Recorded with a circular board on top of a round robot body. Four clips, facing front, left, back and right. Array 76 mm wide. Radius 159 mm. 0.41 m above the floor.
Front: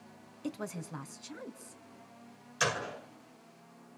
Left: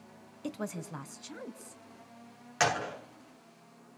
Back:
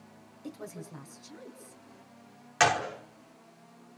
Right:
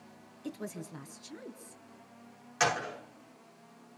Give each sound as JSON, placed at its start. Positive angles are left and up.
{"t": 0.4, "sound": "a woman speaking", "azimuth_deg": 60, "distance_m": 3.0}
{"t": 2.6, "sound": "a gunshot", "azimuth_deg": 160, "distance_m": 5.0}